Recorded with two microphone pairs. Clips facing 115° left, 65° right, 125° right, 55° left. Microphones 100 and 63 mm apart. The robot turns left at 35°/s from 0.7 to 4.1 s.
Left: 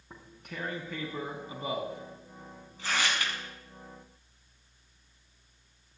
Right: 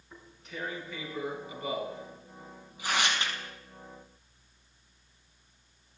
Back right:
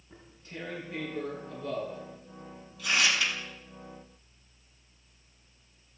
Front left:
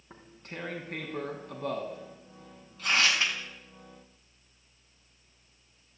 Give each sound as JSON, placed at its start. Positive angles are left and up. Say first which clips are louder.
{"t": 0.1, "sound": "tearing paper", "louder": "even, front left 2 dB", "azimuth_deg": 85, "distance_m": 5.5}